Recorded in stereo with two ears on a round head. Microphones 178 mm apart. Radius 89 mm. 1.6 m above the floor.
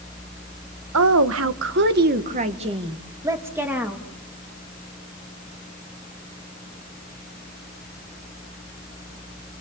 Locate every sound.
0.9 s a woman speaking: 85° right, 1.7 m; by 4.0 s 5° right (ahead or behind), 3 m